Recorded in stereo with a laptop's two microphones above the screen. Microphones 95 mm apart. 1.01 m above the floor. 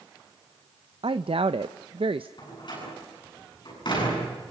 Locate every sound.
1.0 s a woman speaking: 70° right (ahead or behind), 0.6 m
2.4 s a door slam: 55° left (ahead or behind), 9.5 m